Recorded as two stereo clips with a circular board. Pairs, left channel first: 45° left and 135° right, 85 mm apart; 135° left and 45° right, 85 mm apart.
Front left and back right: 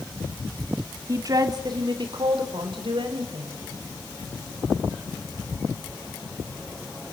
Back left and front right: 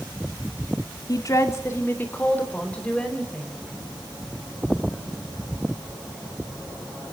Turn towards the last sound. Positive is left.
turn(degrees=-145)